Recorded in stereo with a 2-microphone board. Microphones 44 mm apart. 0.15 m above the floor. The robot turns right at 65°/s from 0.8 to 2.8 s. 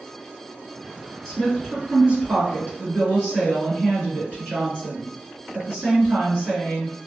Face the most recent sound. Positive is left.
turn(degrees=-90)